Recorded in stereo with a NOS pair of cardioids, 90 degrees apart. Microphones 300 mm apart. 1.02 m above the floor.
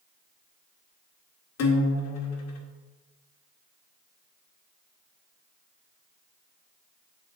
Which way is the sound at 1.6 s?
55° left.